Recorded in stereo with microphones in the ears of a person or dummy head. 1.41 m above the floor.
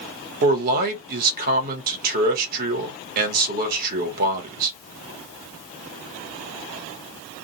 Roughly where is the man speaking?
Right.